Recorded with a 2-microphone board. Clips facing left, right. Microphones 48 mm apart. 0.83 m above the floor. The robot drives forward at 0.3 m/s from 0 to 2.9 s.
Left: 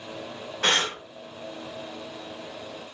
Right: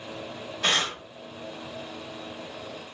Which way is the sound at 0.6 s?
60° left (ahead or behind).